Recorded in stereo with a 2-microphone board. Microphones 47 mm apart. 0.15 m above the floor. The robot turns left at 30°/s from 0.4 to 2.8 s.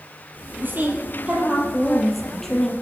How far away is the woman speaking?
About 4 m.